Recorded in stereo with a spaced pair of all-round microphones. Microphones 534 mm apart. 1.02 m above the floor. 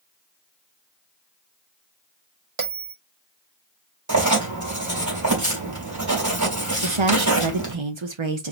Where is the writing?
30° right (ahead or behind), 3 m.